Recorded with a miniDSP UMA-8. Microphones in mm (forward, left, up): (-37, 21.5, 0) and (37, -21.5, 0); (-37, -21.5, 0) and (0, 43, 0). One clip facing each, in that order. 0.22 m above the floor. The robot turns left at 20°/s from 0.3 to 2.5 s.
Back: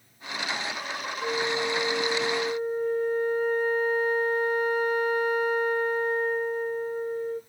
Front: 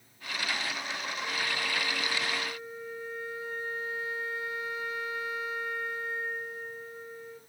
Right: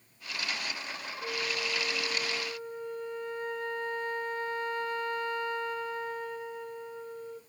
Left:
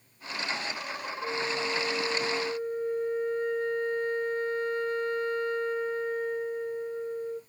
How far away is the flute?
About 1.0 m.